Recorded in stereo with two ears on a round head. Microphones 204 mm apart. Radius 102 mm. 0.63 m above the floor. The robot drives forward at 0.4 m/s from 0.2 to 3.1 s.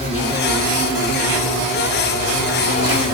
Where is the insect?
30° left (ahead or behind), 4 m; by 3.2 s 35° left (ahead or behind), 3 m.